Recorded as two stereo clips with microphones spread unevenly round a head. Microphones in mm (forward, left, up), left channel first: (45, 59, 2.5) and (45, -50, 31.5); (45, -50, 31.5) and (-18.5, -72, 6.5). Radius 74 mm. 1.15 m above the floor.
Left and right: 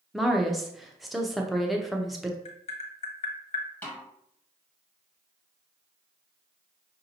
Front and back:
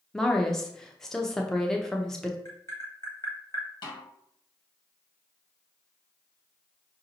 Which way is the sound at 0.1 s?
145° left.